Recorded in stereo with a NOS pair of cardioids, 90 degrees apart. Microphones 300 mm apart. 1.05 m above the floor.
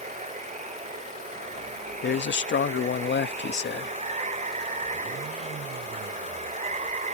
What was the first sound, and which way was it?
Running water, 25° right.